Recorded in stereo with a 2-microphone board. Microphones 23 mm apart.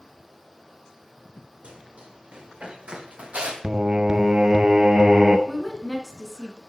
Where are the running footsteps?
60° right (ahead or behind), 4.5 m; by 3.5 s 70° right (ahead or behind), 2.0 m.